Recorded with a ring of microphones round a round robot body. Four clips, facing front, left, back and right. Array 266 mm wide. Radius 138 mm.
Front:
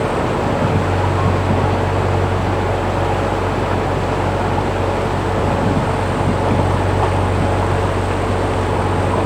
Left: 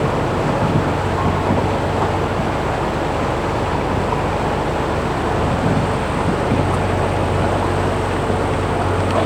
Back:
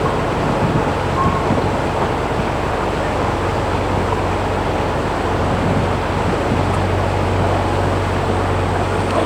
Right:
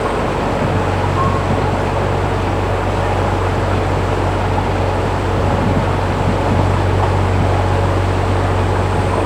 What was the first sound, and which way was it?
Only background noise.